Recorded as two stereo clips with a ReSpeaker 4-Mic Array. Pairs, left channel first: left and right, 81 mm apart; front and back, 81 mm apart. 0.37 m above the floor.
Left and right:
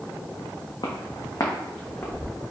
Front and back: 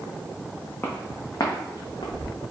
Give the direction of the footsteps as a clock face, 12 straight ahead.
10 o'clock.